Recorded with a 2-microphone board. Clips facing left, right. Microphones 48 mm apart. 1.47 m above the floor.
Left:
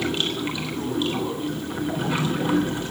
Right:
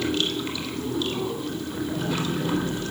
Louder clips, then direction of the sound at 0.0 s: Even; 20° left (ahead or behind).